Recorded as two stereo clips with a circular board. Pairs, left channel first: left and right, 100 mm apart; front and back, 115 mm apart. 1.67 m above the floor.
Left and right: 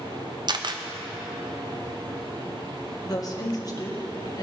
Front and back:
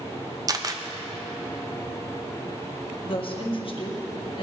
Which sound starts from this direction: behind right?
A camera shutter, at 0.5 s.